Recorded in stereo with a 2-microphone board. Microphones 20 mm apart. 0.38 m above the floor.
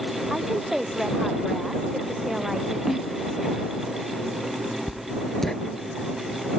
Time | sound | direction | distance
0.3 | a woman speaking | 15° right (ahead or behind) | ?
2.9 | a snare drum | 15° right (ahead or behind) | ?
4.9 | writing | 10° left (ahead or behind) | ?